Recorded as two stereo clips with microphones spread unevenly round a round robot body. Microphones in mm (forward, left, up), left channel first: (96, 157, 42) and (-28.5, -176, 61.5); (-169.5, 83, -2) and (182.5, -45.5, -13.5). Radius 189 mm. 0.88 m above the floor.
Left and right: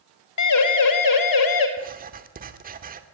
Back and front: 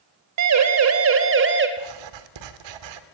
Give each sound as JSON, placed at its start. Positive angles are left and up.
{"t": 0.4, "sound": "a siren", "azimuth_deg": 25, "distance_m": 3.0}
{"t": 1.8, "sound": "writing", "azimuth_deg": -45, "distance_m": 2.5}